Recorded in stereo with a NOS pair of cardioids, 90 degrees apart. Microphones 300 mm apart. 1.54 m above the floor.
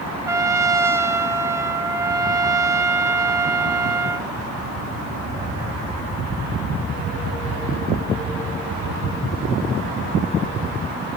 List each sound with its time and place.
0.3 s a trumpet: 10° right, 1.8 m